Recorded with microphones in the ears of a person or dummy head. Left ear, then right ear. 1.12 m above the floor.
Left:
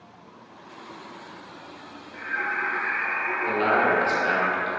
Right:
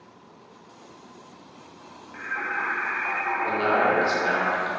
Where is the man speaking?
Centre (ahead or behind), 0.8 m.